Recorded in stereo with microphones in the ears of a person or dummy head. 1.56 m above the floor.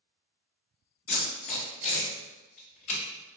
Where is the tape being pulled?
40° left (ahead or behind), 1.7 m.